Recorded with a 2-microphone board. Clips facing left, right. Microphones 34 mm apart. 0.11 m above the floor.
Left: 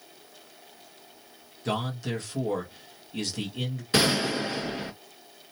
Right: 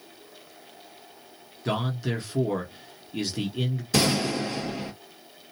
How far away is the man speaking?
About 1.2 m.